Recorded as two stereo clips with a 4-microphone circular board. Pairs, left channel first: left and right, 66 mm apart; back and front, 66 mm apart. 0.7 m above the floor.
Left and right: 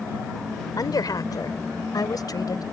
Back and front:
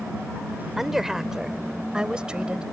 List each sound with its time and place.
0.8 s a woman speaking: 85° left; by 2.6 s 75° left